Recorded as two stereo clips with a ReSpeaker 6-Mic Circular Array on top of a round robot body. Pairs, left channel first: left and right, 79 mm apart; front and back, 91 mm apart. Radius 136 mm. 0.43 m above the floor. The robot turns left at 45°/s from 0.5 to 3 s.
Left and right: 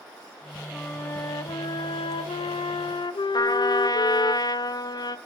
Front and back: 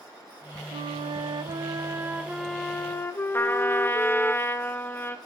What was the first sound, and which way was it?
A flute, 170° left.